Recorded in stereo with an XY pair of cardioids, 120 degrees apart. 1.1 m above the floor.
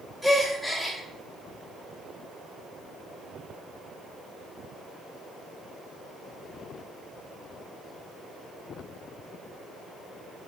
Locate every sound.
0.2 s a gasp: straight ahead, 1.0 m